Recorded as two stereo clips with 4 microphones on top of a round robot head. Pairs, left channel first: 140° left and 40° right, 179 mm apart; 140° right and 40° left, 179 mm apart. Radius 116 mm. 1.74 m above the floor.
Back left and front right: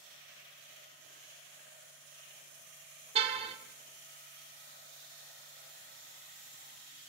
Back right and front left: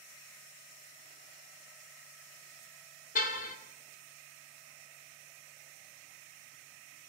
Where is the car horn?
95° right, 2 m.